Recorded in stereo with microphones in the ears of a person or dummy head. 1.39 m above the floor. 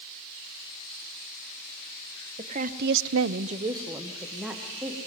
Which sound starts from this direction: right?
A woman speaking, at 2.4 s.